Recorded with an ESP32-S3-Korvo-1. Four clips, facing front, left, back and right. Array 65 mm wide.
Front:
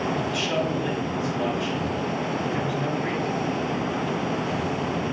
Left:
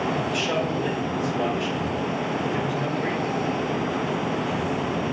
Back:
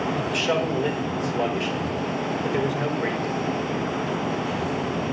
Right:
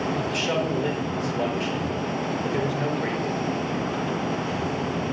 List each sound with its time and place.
0.3 s a man speaking: 160° right, 4 m